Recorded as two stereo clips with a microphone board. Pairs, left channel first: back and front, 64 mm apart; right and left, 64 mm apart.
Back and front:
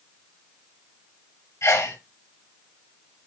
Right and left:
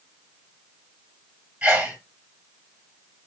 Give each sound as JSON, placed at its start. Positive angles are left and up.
{"t": 1.6, "sound": "a sneeze", "azimuth_deg": 160, "distance_m": 2.0}